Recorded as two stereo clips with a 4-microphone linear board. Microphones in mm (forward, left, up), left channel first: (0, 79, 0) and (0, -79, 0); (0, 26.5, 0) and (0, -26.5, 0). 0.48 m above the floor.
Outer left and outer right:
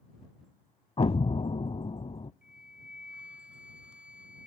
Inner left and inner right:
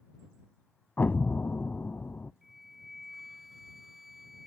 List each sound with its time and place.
1.0 s an explosion: 40° left (ahead or behind)
2.4 s a flute: 5° right (ahead or behind)